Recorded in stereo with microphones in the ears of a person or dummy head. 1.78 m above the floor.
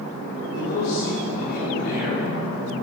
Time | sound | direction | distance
0.5 | a man speaking | 60° left (ahead or behind) | 2.5 m